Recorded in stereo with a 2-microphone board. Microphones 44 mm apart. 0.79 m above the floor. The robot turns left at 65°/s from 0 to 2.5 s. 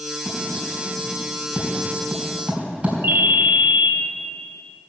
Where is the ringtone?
80° right, 1.3 m.